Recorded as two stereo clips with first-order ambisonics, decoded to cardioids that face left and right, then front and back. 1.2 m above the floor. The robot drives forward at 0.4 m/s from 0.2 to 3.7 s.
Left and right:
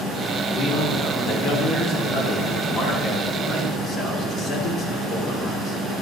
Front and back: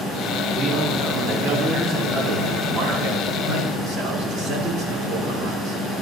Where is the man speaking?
120° left, 2.5 m; by 5.8 s 140° left, 3.5 m.